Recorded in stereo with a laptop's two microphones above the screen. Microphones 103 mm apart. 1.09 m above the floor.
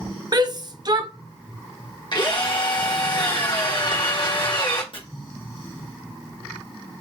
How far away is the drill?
About 1.3 m.